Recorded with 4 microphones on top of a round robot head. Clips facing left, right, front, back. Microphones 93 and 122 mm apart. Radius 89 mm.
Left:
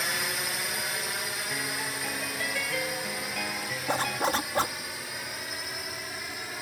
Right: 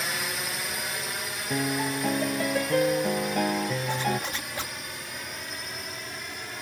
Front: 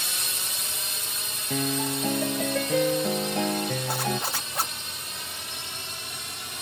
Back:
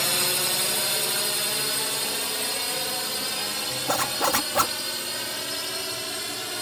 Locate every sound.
0.0 s a drone: straight behind
1.5 s a piano: 35° right
3.9 s a zipper: 155° left